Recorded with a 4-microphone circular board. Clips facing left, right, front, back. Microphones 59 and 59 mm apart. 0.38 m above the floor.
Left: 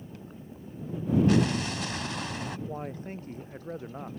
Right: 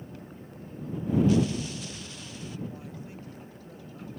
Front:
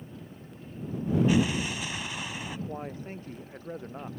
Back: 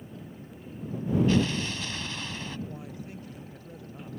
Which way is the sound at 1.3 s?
75° left.